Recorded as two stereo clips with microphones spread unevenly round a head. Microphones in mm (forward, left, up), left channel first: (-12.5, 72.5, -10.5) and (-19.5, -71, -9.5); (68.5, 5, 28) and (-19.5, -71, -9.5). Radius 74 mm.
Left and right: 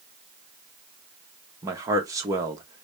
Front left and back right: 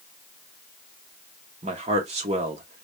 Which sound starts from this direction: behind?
A man speaking, at 1.6 s.